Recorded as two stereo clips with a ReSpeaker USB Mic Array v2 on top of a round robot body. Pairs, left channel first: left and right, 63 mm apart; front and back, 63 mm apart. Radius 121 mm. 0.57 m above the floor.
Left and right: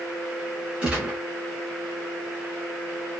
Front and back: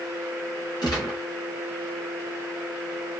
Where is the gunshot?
15° right, 1.2 m.